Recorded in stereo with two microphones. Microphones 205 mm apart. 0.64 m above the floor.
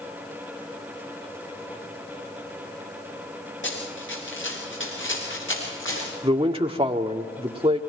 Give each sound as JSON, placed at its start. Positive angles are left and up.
{"t": 3.6, "sound": "running footsteps", "side_deg": 70, "distance_m": 7.0}
{"t": 6.2, "sound": "a man speaking", "side_deg": -25, "distance_m": 1.6}